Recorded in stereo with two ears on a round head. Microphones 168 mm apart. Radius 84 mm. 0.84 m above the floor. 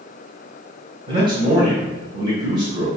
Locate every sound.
1.1 s a man speaking: 25° right (ahead or behind), 3.5 m